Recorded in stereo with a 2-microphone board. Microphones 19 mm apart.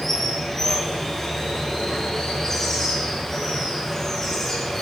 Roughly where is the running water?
Left.